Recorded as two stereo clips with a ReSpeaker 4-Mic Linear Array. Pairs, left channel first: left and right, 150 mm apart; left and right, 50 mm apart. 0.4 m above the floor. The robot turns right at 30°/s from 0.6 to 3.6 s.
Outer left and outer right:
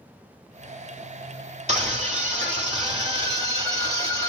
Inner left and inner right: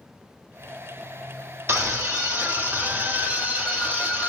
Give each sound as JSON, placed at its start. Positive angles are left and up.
{"t": 1.7, "sound": "a scream", "azimuth_deg": -95, "distance_m": 1.4}